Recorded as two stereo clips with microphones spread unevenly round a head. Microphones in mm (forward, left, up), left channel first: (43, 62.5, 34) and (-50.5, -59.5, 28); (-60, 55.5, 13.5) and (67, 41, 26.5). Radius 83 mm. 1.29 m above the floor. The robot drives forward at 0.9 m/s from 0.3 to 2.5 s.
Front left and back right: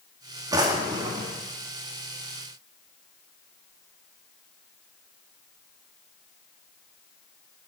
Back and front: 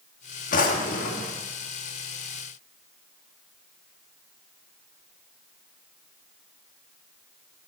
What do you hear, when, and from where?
0.5 s a drawer: 165° left, 1.2 m; by 1.4 s 170° left, 1.9 m